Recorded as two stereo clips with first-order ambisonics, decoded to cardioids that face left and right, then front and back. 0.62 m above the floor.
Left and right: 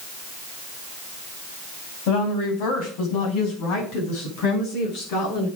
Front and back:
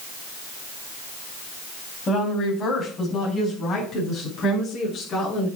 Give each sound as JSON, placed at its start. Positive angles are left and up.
{"t": 2.1, "sound": "a woman speaking", "azimuth_deg": 70, "distance_m": 4.5}